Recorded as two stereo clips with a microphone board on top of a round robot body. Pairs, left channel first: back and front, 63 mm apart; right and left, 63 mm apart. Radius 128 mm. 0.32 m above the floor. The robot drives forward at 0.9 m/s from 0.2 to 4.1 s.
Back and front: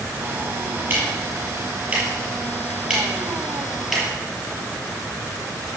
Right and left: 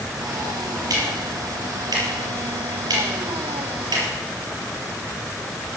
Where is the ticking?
60° left, 6 m; by 4.0 s 90° left, 5.5 m.